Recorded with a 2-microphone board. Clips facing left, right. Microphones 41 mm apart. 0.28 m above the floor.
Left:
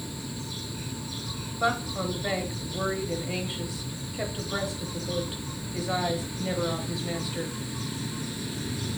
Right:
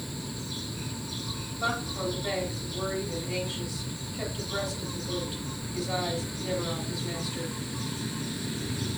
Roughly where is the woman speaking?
Left.